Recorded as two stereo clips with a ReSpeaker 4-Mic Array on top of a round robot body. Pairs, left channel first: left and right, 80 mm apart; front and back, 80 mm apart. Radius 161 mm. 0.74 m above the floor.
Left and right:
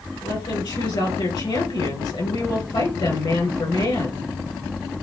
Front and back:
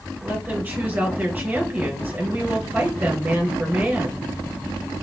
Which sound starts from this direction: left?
A woman speaking, at 0.2 s.